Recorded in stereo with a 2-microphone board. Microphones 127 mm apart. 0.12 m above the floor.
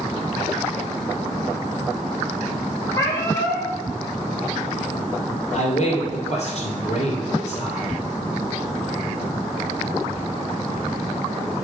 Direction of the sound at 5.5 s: 50° left (ahead or behind).